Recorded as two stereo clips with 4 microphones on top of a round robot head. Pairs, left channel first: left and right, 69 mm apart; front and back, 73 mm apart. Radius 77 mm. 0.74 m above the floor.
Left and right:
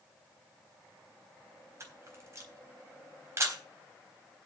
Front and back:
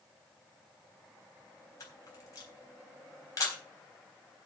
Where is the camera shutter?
45° right, 3.5 m.